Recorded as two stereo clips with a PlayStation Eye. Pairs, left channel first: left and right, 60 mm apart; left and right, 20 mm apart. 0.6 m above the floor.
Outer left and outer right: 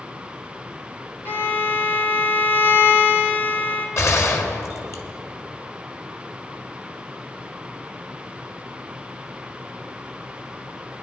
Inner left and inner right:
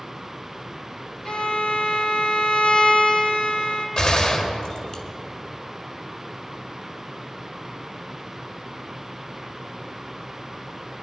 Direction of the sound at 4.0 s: 45° left (ahead or behind).